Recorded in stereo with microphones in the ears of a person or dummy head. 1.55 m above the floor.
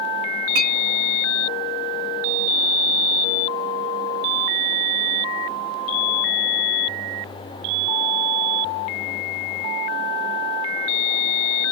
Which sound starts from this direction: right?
A clink, at 0.6 s.